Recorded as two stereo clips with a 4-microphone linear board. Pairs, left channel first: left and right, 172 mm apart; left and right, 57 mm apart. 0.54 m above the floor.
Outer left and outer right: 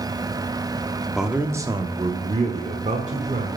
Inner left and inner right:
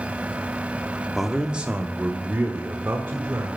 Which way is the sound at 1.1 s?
Centre (ahead or behind).